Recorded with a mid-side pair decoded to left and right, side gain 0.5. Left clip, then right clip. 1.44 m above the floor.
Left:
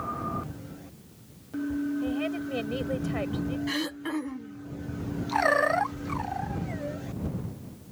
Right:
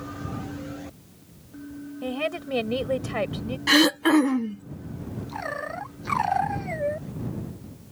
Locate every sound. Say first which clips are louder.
2.0 s a woman speaking: right 2 dB; 40° right
3.7 s throat clearing: right 17 dB; 65° right